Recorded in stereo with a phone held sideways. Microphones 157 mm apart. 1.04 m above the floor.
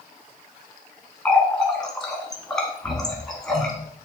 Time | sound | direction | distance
1.2 | a running tap | 5° left (ahead or behind) | 1.0 m